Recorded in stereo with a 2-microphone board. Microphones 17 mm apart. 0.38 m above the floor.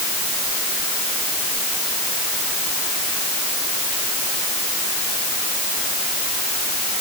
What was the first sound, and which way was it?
Only background noise.